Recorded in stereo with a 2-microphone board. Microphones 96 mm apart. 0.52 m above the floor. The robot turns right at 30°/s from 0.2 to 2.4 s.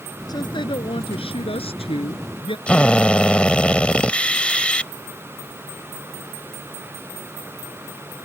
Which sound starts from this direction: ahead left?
A woman speaking, at 0.3 s.